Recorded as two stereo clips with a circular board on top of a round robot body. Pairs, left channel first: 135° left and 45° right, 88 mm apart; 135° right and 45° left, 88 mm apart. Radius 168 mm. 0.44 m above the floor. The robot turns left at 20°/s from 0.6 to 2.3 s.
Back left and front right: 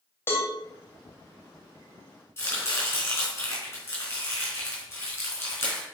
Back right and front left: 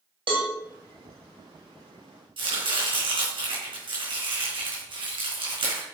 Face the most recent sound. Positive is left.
turn(degrees=70)